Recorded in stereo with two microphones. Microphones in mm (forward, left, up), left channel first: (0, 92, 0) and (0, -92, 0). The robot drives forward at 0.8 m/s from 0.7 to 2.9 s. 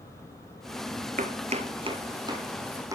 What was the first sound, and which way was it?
Chopping, 50° right (ahead or behind).